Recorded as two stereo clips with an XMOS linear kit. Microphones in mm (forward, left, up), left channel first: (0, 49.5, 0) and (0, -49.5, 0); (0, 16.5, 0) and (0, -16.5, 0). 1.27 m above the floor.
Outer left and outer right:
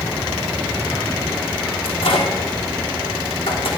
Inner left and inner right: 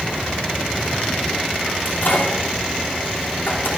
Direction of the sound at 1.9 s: 70° left (ahead or behind).